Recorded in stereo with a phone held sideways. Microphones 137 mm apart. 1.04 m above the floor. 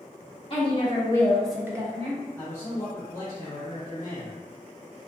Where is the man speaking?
60° left (ahead or behind), 0.9 m.